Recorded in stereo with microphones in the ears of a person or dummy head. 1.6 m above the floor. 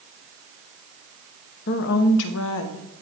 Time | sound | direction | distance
1.7 | a woman speaking | 55° left (ahead or behind) | 0.9 m